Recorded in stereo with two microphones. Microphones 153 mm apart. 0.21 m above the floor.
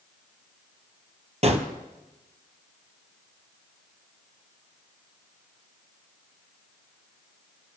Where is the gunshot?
45° right (ahead or behind), 1.5 m.